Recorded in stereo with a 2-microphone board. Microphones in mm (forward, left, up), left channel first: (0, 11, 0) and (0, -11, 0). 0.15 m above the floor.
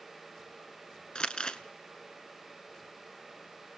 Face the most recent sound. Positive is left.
turn(degrees=40)  # may be behind; listen again after turning